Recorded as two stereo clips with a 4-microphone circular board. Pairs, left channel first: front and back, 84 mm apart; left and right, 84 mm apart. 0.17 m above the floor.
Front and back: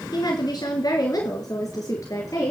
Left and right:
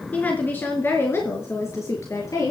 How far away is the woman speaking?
About 2.5 m.